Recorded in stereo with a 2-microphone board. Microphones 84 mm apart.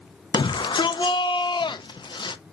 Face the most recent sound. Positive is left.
turn(degrees=70)  # may be behind; listen again after turning